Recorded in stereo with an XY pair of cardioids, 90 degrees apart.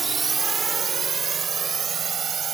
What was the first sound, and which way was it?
A drone, 45° right.